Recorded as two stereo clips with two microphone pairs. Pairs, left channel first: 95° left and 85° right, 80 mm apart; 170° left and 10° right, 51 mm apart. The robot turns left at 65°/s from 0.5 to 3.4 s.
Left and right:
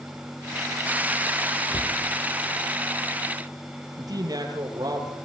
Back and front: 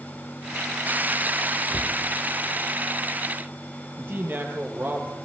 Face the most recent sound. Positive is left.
turn(degrees=-55)